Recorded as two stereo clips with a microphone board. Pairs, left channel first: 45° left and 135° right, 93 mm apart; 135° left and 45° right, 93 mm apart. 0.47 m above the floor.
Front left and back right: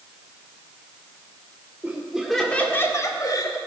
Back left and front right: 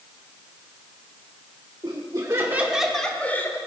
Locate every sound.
1.8 s laughter: 65° right, 1.6 m; by 3.6 s 75° left, 1.8 m